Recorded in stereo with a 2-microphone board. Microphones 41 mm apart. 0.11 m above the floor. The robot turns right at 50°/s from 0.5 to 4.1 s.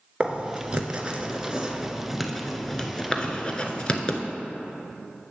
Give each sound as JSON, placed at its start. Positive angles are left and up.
{"t": 0.2, "sound": "writing", "side_deg": -25, "distance_m": 0.7}